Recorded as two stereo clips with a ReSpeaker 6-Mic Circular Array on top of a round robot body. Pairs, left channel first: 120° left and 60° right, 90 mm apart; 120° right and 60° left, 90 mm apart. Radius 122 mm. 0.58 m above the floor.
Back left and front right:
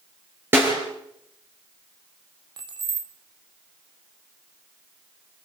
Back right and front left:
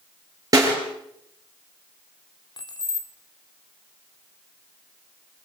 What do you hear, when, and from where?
0.5 s a snare drum: 5° left, 5.5 m
2.6 s keys jangling: 85° right, 1.7 m